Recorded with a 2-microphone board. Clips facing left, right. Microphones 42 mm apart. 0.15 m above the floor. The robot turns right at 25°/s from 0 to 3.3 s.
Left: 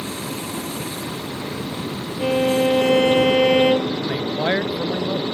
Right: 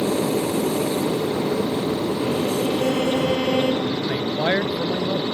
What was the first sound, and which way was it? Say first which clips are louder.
An aircraft: right 8 dB; 100° right.